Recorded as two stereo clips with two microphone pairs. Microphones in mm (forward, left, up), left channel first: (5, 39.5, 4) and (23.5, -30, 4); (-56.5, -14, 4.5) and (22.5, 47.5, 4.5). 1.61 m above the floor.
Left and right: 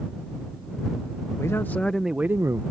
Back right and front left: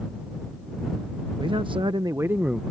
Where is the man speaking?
65° left; by 2.6 s 45° right.